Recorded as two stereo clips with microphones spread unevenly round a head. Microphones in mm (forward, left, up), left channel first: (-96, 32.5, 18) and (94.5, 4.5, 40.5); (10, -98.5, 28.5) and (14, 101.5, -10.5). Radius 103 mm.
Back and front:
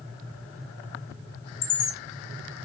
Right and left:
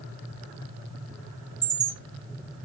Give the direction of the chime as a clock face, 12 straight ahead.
6 o'clock.